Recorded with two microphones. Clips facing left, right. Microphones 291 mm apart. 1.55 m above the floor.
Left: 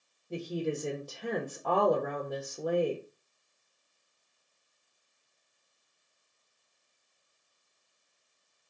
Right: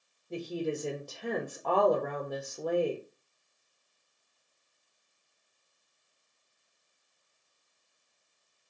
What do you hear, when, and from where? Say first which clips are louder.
0.3 s a woman speaking: even; 5° left (ahead or behind), 0.7 m